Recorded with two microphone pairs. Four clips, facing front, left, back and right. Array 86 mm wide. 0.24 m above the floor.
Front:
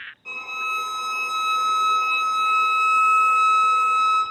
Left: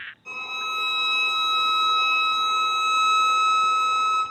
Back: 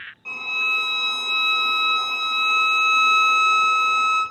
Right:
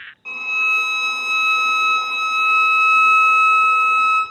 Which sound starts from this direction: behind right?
A violin, at 0.2 s.